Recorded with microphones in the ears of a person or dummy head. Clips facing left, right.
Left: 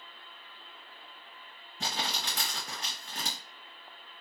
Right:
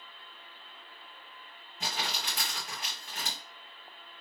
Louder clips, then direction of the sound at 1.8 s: Left 1 dB; 35° left (ahead or behind).